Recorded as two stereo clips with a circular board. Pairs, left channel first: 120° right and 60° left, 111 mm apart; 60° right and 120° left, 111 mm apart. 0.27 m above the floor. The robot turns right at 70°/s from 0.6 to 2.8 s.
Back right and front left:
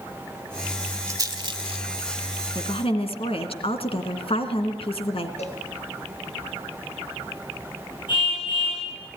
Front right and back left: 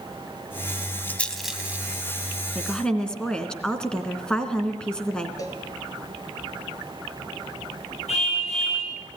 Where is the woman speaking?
160° right, 2.5 m; by 5.3 s 145° right, 2.5 m.